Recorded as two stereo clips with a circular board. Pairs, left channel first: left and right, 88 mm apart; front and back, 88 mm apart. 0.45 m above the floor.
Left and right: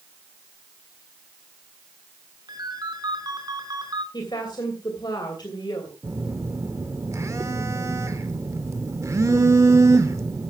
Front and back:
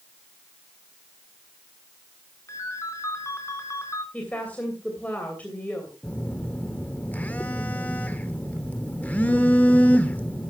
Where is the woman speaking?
70° left, 2.5 m.